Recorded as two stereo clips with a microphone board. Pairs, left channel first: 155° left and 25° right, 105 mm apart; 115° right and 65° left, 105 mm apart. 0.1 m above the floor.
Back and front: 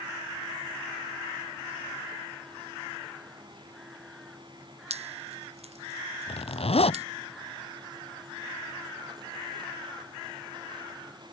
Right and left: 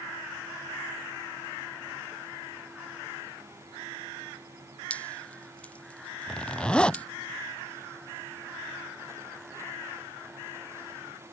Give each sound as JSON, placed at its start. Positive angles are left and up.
{"t": 4.9, "sound": "dripping", "azimuth_deg": -35}
{"t": 6.3, "sound": "a zipper", "azimuth_deg": 165}